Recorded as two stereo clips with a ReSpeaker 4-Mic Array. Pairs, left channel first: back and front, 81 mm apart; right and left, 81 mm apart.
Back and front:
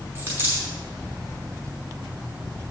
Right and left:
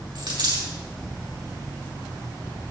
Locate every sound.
0.1 s a dropped coin: 65° left, 4 m